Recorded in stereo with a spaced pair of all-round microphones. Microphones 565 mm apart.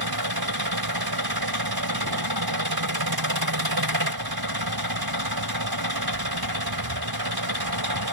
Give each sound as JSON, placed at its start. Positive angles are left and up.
{"t": 0.0, "sound": "an engine running", "side_deg": -40}